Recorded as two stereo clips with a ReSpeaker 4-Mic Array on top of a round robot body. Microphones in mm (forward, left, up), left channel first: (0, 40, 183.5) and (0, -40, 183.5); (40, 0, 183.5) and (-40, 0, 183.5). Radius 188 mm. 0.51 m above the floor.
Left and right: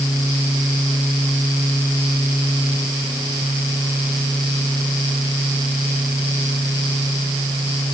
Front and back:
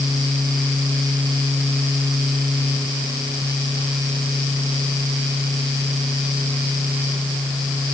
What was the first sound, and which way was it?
Only background noise.